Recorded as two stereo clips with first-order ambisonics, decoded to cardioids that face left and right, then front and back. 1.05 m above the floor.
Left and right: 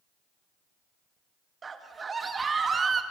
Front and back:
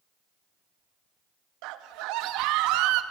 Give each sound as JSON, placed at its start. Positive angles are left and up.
{"t": 1.6, "sound": "a scream", "azimuth_deg": -160, "distance_m": 2.0}